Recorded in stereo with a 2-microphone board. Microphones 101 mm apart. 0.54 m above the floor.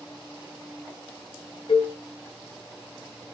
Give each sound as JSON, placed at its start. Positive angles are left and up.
{"t": 1.7, "sound": "a cowbell", "side_deg": 65, "distance_m": 5.0}